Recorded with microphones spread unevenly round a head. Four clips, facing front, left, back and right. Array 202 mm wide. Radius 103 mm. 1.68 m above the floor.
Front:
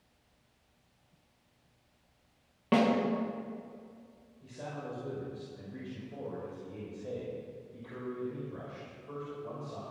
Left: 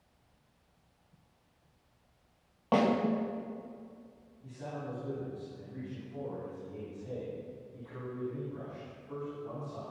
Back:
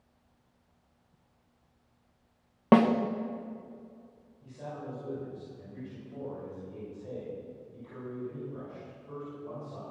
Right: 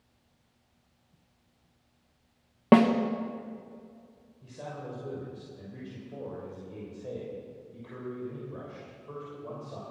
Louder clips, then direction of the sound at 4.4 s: Right 1 dB, back 1 dB; 70° right.